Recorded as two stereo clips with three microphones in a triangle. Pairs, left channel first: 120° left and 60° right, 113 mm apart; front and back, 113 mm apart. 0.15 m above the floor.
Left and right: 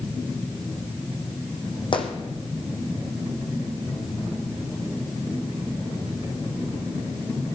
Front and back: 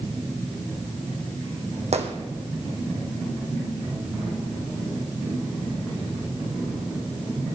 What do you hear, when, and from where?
1.9 s a gunshot: 160° left, 1.8 m